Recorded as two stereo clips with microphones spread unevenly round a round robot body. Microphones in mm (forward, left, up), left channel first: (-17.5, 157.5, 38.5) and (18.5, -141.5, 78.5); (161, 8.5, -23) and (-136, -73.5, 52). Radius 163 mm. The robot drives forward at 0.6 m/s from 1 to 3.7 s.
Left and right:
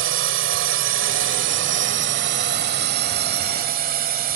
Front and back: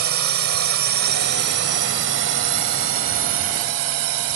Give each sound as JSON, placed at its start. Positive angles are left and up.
{"t": 0.0, "sound": "a drone", "azimuth_deg": -130}